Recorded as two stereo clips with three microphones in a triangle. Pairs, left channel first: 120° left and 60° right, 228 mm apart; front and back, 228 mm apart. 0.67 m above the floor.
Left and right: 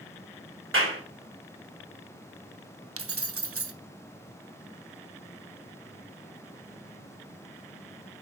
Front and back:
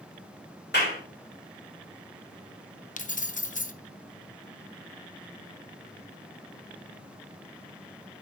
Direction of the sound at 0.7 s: 40° right.